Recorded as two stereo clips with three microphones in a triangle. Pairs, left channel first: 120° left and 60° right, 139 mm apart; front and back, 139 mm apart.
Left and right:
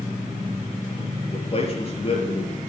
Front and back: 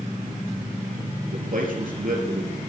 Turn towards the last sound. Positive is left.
turn(degrees=165)